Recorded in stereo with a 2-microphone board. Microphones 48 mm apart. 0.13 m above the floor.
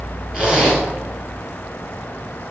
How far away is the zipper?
About 2.0 m.